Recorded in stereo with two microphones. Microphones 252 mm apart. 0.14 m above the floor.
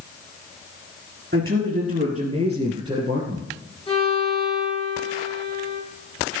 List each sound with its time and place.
1.3 s a man speaking: 40° right (ahead or behind), 2 m; by 3.5 s 10° right (ahead or behind), 2.5 m
3.9 s a violin: 25° left (ahead or behind), 6.5 m